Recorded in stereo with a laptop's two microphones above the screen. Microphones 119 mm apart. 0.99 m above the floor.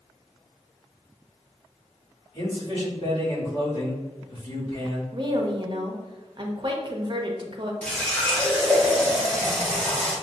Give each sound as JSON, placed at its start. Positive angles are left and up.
{"t": 2.3, "sound": "a man speaking", "side_deg": 55, "distance_m": 1.8}
{"t": 5.1, "sound": "a woman speaking", "side_deg": -40, "distance_m": 0.8}
{"t": 7.8, "sound": "a running tap", "side_deg": 10, "distance_m": 1.1}